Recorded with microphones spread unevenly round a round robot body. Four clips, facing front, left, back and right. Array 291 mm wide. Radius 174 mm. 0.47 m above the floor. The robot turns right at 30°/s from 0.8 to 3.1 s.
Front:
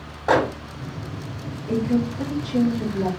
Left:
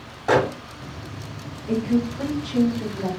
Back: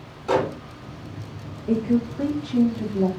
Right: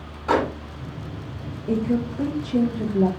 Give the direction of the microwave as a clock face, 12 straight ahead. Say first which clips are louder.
Left 2 dB, front 3 dB; 11 o'clock.